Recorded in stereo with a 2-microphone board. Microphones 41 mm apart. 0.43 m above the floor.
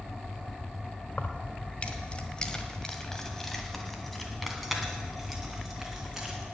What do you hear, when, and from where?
1.1 s keys jangling: 50° left (ahead or behind), 1.1 m; by 6.4 s 5° right (ahead or behind), 3.5 m